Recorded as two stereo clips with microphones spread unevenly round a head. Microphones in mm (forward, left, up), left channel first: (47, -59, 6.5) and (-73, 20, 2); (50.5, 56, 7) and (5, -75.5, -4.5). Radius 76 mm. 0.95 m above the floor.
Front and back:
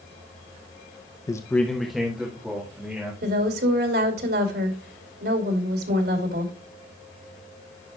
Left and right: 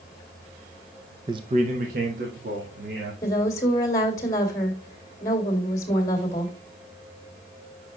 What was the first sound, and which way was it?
A man speaking, 80° right.